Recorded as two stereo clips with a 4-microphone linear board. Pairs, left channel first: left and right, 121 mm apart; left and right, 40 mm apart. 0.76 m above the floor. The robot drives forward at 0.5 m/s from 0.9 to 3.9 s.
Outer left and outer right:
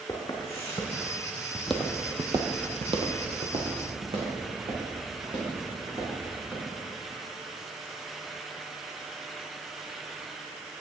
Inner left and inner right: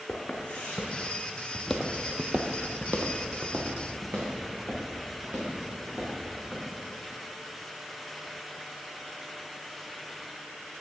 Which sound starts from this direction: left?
Footsteps, at 0.1 s.